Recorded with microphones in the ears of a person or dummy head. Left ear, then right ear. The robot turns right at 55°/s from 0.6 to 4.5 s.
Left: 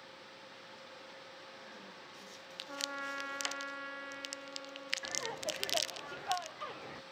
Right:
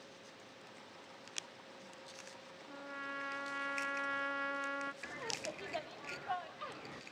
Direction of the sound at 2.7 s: 135° left.